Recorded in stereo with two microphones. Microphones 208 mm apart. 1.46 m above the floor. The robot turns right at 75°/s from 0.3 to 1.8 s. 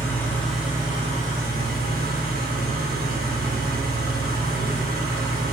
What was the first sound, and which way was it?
An engine running, 165° left.